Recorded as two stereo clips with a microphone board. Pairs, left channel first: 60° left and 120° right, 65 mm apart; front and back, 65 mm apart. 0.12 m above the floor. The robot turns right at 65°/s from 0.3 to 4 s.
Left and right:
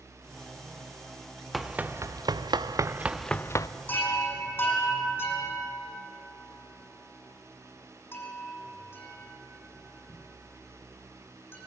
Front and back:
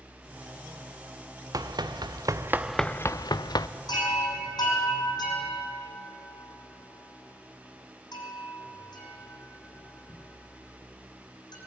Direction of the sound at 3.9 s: 5° right.